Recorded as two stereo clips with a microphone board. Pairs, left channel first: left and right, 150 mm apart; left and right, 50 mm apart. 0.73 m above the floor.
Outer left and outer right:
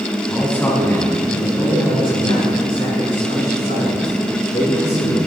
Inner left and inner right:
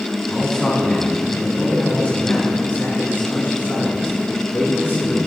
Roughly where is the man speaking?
Centre.